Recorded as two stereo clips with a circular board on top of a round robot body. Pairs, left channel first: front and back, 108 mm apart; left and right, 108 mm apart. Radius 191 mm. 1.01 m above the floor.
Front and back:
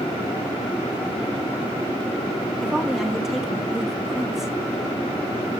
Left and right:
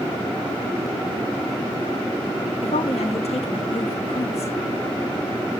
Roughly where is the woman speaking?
Left.